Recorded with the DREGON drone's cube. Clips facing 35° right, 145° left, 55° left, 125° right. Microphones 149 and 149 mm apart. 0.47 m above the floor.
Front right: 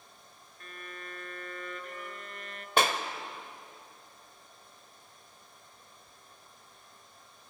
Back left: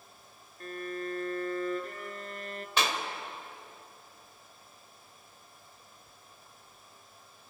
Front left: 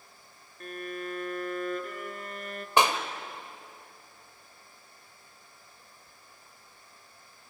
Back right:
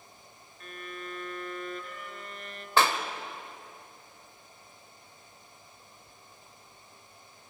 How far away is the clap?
About 1.4 m.